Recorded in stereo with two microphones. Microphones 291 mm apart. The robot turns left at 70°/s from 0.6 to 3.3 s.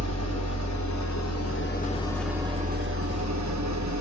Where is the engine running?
115° left, 0.7 m; by 4.0 s 75° right, 0.7 m.